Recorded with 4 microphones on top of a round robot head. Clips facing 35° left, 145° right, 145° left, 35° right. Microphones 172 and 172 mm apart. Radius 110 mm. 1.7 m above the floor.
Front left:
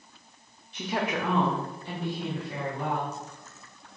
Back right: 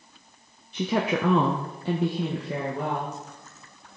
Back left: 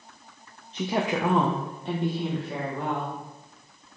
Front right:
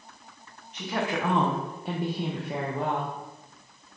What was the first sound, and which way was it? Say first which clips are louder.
A woman speaking: back right 5 dB, back left 3 dB; 150° right.